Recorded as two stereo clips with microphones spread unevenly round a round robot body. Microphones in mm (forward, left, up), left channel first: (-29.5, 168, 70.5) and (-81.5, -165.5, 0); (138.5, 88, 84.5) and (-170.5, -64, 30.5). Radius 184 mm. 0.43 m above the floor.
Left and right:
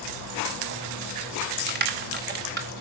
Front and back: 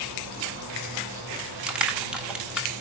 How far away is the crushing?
About 1.8 m.